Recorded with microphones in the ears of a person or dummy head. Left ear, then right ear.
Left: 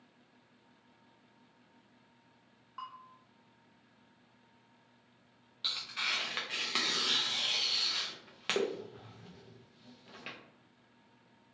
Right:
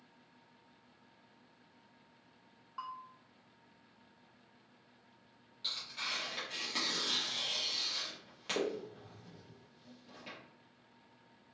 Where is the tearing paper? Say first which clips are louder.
Left 4 dB; 45° left (ahead or behind), 0.9 m.